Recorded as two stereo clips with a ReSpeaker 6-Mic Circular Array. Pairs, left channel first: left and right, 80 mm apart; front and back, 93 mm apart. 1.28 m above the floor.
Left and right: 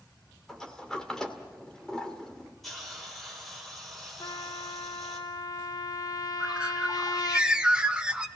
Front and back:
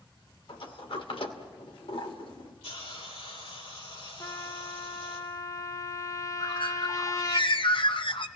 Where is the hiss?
Straight ahead, 4.5 m.